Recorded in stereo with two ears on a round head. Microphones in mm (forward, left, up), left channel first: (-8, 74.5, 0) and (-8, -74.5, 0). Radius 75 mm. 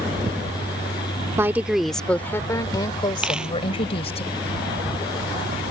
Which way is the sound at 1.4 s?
15° right (ahead or behind).